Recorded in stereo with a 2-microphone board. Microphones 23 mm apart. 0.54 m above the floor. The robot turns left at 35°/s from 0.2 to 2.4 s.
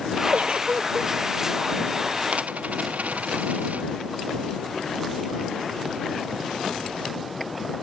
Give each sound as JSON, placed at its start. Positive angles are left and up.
{"t": 0.3, "sound": "a giggle", "side_deg": -70}
{"t": 2.3, "sound": "a dropped coin", "side_deg": -85}